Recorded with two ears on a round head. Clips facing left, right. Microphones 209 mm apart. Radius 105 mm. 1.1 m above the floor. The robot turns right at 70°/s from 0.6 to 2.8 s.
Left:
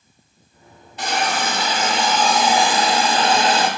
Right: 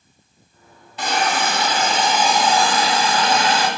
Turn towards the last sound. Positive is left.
turn(degrees=30)